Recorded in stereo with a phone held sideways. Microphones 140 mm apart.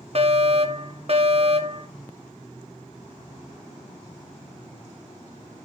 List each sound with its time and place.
0.1 s a fire alarm: 50° right (ahead or behind), 1.4 m